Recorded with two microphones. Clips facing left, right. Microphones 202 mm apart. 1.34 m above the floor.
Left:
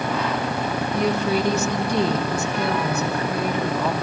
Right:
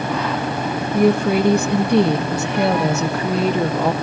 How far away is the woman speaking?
About 2 m.